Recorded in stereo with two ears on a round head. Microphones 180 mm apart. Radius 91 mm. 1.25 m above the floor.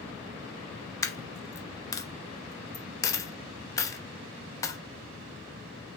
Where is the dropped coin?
15° left (ahead or behind), 0.6 m.